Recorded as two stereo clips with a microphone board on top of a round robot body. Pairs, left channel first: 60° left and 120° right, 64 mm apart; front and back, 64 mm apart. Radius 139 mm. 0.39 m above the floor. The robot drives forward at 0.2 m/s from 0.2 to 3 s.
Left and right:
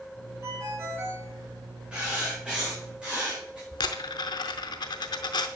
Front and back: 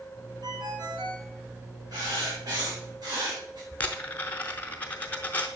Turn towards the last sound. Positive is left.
turn(degrees=70)